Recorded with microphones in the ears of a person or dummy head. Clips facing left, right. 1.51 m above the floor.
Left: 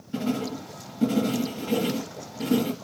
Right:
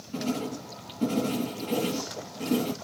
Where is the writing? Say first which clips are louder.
Left 3 dB; 10° left (ahead or behind), 2.5 m.